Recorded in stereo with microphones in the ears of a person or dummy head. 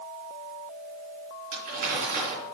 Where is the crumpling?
50° right (ahead or behind), 4 m.